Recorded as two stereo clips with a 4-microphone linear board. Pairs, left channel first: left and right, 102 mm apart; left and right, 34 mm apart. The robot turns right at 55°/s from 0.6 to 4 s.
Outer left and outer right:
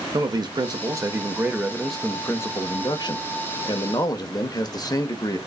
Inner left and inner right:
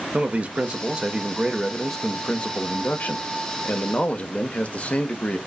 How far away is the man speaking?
About 0.8 m.